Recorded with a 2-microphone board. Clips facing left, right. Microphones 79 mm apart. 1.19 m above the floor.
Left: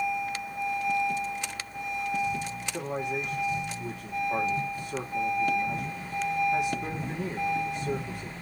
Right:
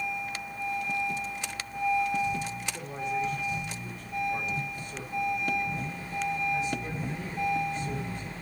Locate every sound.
2.7 s a man speaking: 70° left (ahead or behind), 3 m